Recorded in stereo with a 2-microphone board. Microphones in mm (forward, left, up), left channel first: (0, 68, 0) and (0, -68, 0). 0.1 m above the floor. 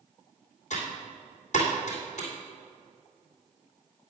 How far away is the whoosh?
No whoosh in this recording.